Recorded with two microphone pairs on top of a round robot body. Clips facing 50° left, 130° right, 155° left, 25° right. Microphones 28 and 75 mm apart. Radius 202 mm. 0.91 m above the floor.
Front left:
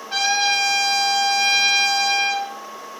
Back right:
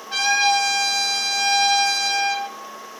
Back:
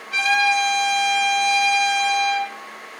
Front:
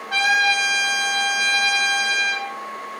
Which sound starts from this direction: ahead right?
A trumpet, at 0.1 s.